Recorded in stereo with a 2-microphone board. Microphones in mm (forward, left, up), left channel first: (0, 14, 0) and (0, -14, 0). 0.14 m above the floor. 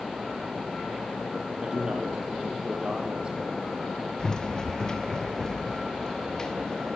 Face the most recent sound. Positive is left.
turn(degrees=20)  # may be behind; listen again after turning